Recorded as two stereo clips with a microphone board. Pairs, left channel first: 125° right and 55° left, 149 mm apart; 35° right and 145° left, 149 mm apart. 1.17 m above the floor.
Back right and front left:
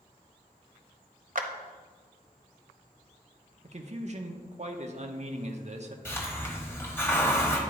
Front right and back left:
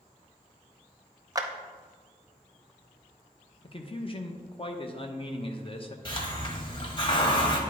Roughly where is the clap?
Left.